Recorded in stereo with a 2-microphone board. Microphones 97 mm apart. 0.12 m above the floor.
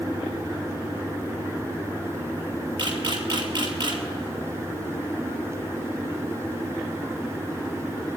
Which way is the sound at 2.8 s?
50° right (ahead or behind).